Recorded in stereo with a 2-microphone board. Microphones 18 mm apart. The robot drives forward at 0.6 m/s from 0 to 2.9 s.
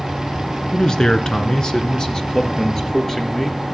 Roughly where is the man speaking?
Left.